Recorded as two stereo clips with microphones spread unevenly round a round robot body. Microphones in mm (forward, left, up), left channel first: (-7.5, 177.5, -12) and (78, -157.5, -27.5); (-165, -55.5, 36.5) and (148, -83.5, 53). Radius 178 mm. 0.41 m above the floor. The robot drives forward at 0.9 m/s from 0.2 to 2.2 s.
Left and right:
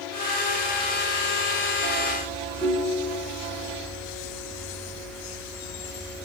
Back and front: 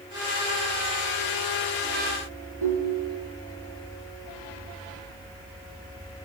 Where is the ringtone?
25° left, 4.5 m.